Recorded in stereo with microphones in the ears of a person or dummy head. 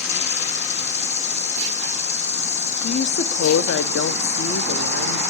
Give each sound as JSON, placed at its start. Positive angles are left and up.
{"t": 0.0, "sound": "an insect", "side_deg": 40, "distance_m": 0.8}
{"t": 2.8, "sound": "a woman speaking", "side_deg": 65, "distance_m": 0.6}